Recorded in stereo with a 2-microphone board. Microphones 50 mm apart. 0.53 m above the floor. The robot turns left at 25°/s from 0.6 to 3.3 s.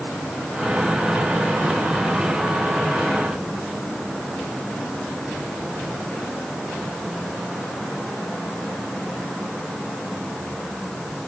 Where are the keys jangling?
No keys jangling in this recording.